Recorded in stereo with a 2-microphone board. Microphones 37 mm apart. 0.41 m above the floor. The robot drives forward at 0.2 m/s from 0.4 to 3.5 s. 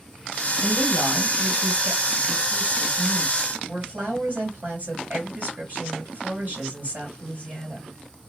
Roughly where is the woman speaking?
Right.